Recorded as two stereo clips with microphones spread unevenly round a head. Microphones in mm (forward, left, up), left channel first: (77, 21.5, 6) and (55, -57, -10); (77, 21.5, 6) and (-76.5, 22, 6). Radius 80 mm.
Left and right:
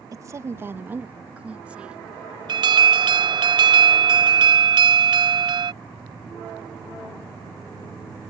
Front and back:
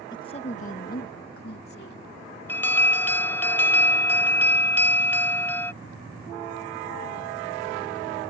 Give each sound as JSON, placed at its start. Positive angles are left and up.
{"t": 0.1, "sound": "a woman speaking", "azimuth_deg": -65}
{"t": 2.5, "sound": "an alarm", "azimuth_deg": -80}